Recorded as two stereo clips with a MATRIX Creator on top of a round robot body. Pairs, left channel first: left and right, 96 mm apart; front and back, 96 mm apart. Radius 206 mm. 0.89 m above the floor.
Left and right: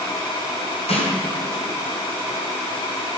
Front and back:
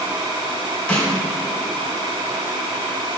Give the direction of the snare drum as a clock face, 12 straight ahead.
9 o'clock.